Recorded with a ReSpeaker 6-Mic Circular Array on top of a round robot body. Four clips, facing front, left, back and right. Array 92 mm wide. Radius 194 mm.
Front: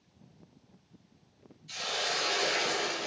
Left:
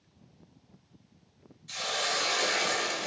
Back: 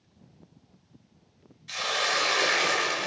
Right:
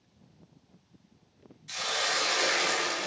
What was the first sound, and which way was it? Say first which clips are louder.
A hiss: right 1 dB, back 6 dB; 165° right.